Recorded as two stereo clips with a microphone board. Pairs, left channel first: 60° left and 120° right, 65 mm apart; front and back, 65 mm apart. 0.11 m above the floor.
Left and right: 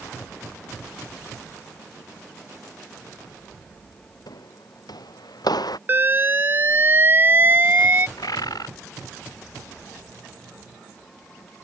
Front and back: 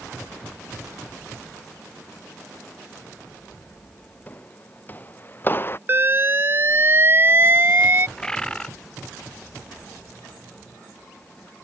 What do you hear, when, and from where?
4.3 s footsteps: 65° left; by 5.8 s 55° left
5.9 s an alarm: 155° right
8.2 s a bird: 80° left